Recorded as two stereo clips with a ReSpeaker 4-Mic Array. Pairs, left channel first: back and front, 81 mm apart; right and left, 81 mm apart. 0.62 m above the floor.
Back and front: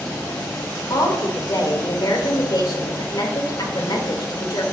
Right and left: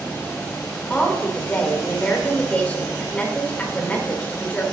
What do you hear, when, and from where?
0.9 s a woman speaking: 160° right, 2 m